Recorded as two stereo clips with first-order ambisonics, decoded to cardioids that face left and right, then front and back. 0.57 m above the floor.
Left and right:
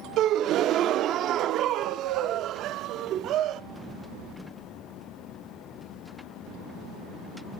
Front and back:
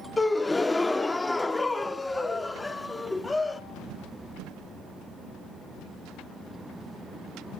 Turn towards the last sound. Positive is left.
turn(degrees=-75)